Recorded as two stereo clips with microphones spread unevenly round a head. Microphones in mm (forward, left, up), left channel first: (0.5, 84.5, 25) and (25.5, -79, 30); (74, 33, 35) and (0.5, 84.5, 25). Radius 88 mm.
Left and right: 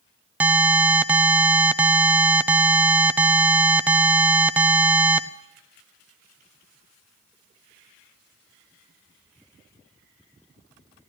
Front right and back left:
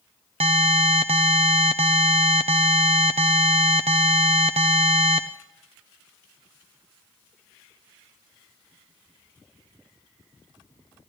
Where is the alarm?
160° right, 0.5 m.